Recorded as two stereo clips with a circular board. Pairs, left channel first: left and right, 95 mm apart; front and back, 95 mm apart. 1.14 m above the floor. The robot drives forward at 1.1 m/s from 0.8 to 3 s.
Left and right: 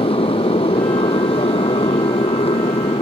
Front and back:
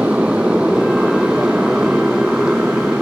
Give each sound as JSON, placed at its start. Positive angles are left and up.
{"t": 0.0, "sound": "a motorcycle", "azimuth_deg": 100}